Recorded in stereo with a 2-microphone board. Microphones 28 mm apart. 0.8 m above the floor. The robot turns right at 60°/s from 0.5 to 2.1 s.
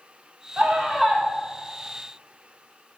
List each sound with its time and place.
0.6 s a scream: 55° right, 2.0 m; by 1.2 s 10° right, 2.0 m